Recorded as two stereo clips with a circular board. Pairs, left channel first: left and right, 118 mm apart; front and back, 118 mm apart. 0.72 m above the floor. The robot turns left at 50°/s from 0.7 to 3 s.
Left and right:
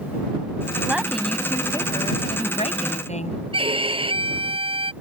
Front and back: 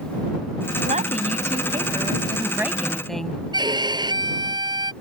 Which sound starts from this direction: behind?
A woman speaking, at 0.8 s.